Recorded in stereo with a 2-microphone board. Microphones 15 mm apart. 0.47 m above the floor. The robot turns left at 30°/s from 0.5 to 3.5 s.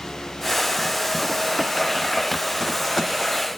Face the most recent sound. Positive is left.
No sound to turn to.